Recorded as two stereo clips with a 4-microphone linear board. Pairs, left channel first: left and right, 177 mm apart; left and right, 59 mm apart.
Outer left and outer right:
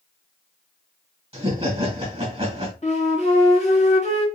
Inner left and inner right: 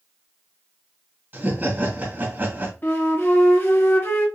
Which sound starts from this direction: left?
A flute, at 2.8 s.